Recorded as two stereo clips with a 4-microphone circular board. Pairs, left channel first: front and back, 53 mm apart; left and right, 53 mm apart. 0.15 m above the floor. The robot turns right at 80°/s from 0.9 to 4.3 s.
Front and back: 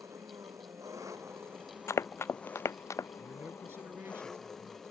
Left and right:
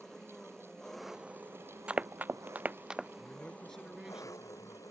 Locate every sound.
0.0 s an engine running: 170° left; by 4.9 s 85° left
1.9 s running footsteps: 20° right; by 3.1 s 5° right
3.2 s a man speaking: 125° left; by 4.8 s 145° right